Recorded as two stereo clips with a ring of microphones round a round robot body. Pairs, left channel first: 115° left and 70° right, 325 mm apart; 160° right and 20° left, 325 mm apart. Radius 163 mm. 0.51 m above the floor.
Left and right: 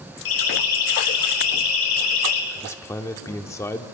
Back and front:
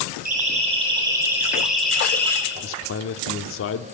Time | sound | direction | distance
0.2 | a siren | 90° left | 4.5 m
2.5 | a man speaking | 170° right | 1.2 m